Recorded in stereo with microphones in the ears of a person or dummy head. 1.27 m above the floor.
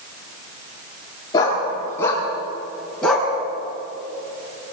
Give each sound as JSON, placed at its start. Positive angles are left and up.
{"t": 1.3, "sound": "a dog barking", "side_deg": 20, "distance_m": 6.5}